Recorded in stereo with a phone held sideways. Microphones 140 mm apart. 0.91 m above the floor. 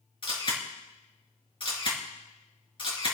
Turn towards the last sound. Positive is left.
turn(degrees=40)  # may be behind; listen again after turning